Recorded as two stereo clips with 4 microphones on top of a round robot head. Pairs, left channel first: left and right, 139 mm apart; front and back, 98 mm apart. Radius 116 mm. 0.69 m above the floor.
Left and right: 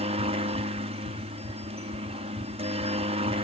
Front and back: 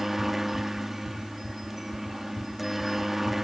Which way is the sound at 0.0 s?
95° right.